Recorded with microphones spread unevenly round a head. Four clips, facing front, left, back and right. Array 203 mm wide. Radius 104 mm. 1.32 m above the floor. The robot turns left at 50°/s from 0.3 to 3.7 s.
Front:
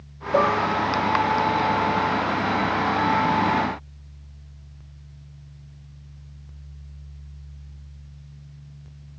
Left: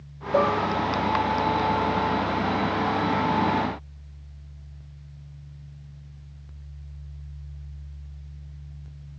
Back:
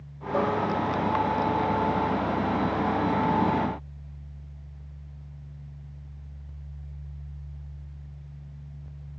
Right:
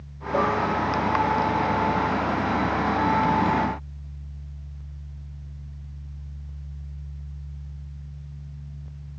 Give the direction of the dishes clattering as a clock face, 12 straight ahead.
11 o'clock.